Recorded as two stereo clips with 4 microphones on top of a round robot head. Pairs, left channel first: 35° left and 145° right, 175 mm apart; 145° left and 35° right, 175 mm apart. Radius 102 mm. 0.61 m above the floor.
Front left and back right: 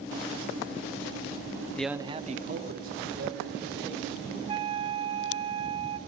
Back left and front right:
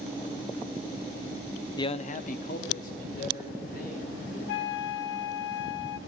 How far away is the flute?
About 0.5 m.